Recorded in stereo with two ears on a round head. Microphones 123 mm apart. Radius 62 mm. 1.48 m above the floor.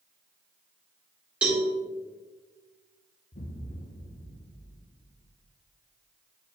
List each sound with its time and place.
1.4 s a cowbell: 10° right (ahead or behind), 2 m
3.3 s an explosion: 65° left (ahead or behind), 0.8 m